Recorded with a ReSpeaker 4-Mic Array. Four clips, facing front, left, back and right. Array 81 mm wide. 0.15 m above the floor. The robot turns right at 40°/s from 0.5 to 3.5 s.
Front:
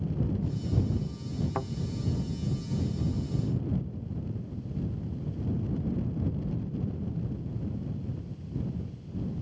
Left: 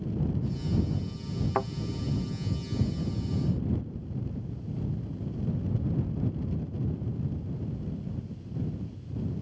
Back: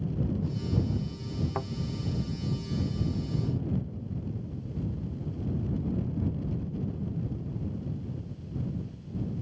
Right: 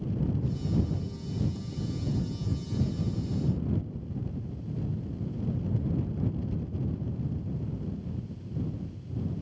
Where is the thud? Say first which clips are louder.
Left 11 dB, front 2 dB; 85° left; by 1.7 s 95° left.